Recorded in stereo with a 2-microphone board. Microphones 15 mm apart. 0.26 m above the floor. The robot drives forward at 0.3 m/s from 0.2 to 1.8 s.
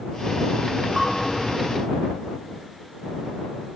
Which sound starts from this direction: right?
A bell, at 1.0 s.